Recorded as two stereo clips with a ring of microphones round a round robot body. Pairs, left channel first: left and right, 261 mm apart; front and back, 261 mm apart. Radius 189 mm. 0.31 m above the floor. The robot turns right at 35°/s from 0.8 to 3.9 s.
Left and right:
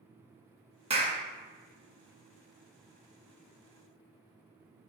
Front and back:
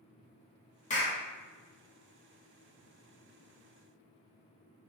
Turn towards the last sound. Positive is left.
turn(degrees=65)